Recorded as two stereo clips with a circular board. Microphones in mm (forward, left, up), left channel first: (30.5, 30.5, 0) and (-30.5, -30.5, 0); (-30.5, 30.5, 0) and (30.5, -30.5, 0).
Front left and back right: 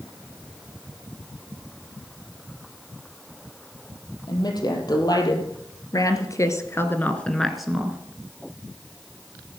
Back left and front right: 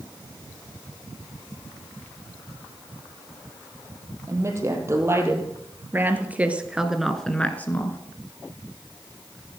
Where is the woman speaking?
10° left, 4.5 m; by 8.0 s 160° left, 1.7 m.